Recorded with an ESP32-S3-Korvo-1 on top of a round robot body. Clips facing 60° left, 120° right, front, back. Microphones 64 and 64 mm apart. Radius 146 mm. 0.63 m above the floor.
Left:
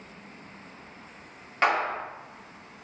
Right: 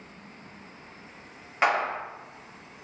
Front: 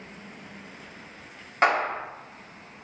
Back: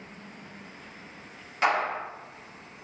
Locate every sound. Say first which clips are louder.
1.6 s a clap: even, front 3 dB; 40° right, 1.7 m